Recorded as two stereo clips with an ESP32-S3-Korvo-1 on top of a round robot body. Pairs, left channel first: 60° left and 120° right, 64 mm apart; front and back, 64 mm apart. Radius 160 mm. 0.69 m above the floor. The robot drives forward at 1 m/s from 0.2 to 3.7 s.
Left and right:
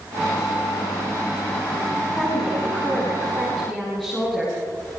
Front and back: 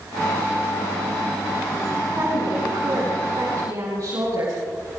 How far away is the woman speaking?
About 7 m.